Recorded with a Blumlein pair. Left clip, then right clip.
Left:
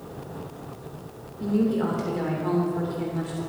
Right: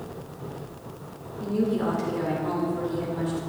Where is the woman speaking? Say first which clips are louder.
Left 1 dB; 10° left, 2.5 m.